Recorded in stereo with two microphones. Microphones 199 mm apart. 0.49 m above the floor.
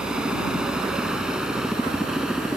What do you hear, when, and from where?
0.0 s a helicopter: 5° right (ahead or behind)